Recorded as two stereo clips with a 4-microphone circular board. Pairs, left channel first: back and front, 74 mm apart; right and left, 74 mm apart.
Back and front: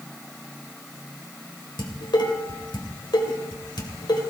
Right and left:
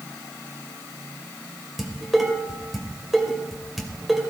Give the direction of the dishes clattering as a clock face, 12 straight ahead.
6 o'clock.